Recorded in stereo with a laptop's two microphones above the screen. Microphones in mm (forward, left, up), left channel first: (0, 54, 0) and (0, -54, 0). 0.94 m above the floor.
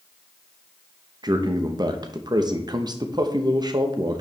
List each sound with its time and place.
1.2 s a man speaking: 40° right (ahead or behind), 0.8 m